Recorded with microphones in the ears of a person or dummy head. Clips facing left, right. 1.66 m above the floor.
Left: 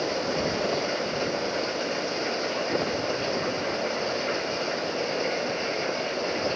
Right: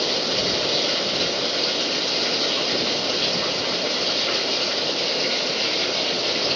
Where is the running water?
50° right (ahead or behind).